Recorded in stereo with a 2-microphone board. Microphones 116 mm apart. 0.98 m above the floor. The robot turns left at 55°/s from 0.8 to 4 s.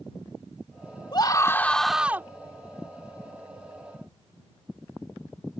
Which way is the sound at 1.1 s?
40° left.